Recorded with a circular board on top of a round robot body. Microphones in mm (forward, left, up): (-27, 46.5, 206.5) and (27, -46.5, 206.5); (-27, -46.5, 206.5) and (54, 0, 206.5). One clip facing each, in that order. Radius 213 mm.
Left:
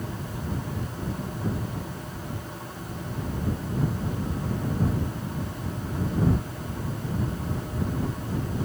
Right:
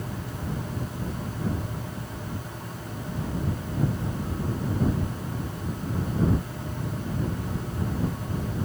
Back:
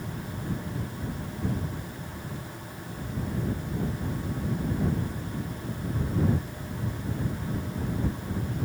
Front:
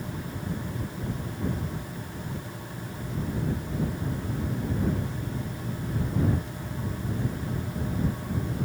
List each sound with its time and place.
Only background noise.